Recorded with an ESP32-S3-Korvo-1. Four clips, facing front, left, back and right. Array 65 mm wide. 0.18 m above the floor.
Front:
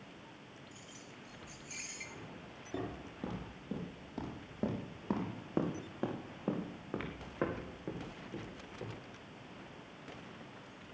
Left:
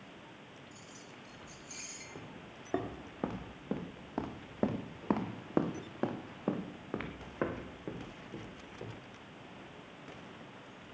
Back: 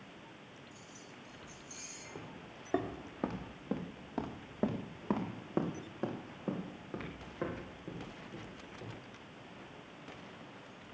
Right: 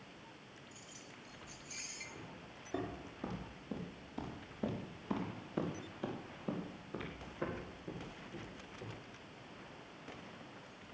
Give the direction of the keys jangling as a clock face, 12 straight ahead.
12 o'clock.